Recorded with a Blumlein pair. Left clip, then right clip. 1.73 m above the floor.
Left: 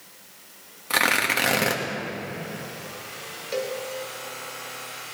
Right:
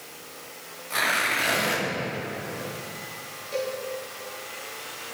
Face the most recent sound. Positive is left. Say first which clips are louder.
# left 1 dB
turn(degrees=25)